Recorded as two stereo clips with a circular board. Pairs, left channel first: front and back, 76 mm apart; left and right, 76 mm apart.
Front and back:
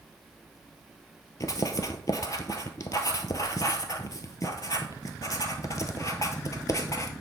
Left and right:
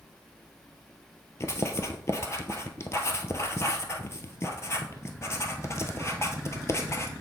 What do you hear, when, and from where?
1.4 s writing: 40° left, 0.8 m